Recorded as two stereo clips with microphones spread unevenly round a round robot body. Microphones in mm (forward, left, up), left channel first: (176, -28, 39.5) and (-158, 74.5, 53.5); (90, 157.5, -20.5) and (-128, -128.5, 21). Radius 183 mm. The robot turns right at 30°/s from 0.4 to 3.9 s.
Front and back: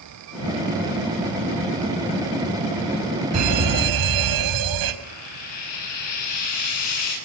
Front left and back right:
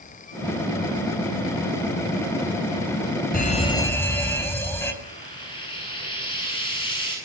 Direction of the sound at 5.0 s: 25° right.